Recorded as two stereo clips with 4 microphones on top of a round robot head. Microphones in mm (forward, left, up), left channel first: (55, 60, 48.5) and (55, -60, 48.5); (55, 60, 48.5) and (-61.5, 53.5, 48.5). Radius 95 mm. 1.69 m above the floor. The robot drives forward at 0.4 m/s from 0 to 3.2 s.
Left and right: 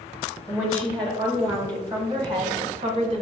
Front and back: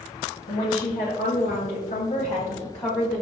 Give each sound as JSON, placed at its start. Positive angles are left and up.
{"t": 0.5, "sound": "a woman speaking", "azimuth_deg": -20, "distance_m": 1.2}